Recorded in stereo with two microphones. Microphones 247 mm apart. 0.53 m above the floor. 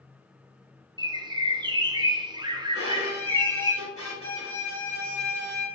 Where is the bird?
20° right (ahead or behind), 0.5 m.